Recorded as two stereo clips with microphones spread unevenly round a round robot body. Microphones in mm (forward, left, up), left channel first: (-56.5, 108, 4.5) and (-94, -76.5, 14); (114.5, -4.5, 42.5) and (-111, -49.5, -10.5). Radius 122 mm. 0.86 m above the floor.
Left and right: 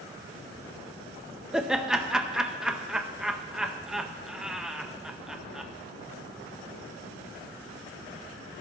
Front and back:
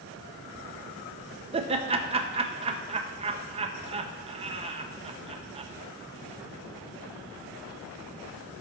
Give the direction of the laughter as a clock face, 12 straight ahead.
6 o'clock.